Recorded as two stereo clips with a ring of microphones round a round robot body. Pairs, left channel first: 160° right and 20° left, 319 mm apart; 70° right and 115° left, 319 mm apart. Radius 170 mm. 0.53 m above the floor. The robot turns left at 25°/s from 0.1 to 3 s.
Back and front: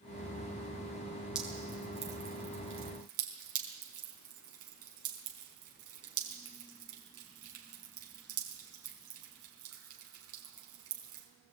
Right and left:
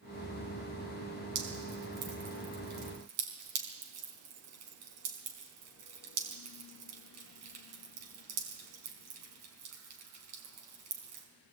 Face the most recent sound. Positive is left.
turn(degrees=70)